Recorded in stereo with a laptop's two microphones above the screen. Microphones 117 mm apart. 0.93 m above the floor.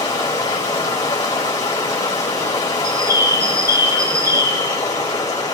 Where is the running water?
30° left (ahead or behind), 3 m.